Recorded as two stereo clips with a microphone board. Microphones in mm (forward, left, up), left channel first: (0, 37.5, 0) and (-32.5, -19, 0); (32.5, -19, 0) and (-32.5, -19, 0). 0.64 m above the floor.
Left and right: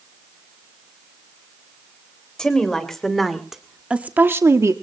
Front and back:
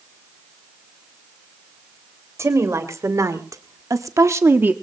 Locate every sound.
2.4 s a woman speaking: 140° left, 2.5 m; by 4.7 s 125° right, 1.0 m